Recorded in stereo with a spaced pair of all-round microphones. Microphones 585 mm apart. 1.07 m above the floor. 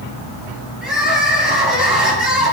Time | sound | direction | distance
0.8 | crying | centre (ahead or behind) | 6 m